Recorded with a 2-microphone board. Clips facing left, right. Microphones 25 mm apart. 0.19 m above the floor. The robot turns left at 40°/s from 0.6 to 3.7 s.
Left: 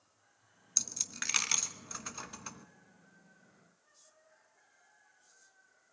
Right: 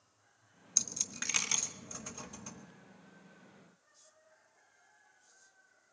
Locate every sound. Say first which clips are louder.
0.8 s a dropped coin: even; centre (ahead or behind), 1.0 m; by 2.7 s 50° left (ahead or behind), 1.0 m